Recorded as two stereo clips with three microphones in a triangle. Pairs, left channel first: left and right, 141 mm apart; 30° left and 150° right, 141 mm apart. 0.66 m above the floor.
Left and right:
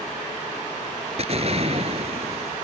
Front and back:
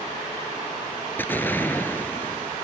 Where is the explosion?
45° right.